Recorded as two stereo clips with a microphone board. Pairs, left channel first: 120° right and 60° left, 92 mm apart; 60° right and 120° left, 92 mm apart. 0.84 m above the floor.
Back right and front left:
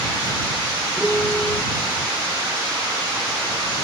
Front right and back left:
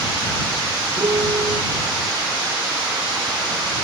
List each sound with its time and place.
1.0 s a piano: 160° left